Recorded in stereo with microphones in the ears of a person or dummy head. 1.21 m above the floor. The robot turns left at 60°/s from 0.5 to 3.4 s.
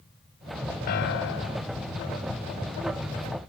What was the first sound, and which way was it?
A piano, 120° left.